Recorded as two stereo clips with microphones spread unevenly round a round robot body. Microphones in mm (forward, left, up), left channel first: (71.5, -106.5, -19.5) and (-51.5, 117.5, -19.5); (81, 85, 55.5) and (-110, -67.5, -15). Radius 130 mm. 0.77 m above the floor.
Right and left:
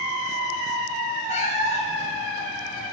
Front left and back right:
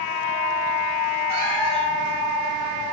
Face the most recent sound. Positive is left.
turn(degrees=-125)